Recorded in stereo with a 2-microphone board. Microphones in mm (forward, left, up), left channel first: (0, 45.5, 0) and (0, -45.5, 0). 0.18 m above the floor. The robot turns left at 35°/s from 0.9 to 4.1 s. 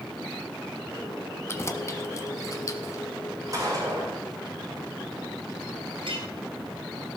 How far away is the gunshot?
About 6.5 m.